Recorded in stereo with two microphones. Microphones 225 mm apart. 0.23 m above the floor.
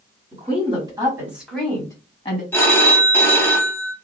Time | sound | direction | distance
0.3 | a woman speaking | 30° right (ahead or behind) | 1.7 m
2.5 | a phone ringing | 10° left (ahead or behind) | 0.6 m